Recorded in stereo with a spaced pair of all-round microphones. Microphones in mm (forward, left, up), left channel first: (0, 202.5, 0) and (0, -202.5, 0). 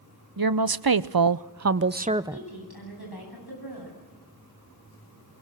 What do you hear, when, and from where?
0.4 s a woman speaking: 60° right (ahead or behind), 0.9 m; by 2.5 s 5° right (ahead or behind), 0.7 m
2.3 s a woman speaking: 65° left (ahead or behind), 9.5 m